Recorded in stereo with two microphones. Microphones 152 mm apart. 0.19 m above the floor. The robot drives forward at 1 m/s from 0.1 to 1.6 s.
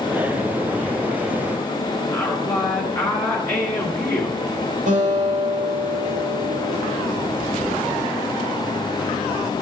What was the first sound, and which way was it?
A woman speaking, 15° left (ahead or behind).